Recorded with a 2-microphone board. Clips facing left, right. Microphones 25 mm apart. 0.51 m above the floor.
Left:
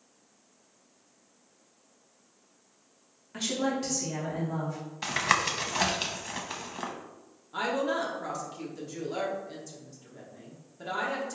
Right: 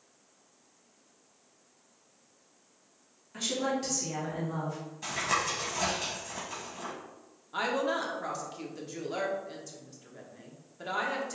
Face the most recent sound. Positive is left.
turn(degrees=-15)  # may be behind; listen again after turning